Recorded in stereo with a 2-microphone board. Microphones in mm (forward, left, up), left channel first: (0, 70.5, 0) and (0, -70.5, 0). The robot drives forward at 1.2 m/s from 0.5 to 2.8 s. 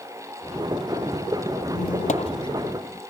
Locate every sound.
1.7 s a squeak: 60° left (ahead or behind), 0.5 m; by 3.0 s 25° left (ahead or behind), 1.1 m